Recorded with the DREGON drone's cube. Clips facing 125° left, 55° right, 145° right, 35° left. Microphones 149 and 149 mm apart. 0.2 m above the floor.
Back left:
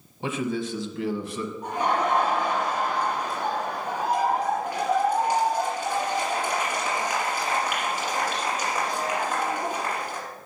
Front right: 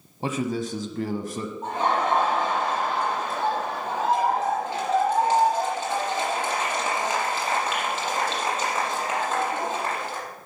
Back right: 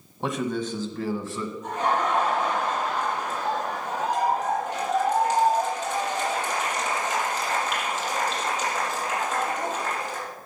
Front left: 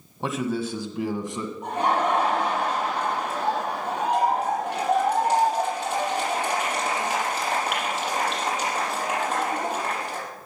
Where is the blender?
No blender in this recording.